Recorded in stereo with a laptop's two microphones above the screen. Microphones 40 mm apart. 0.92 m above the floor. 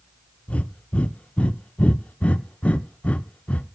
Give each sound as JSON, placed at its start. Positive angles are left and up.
{"t": 0.5, "sound": "breathing", "side_deg": 30, "distance_m": 0.6}